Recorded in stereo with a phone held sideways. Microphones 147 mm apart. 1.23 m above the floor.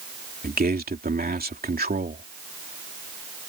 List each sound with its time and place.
0.4 s a man speaking: 80° right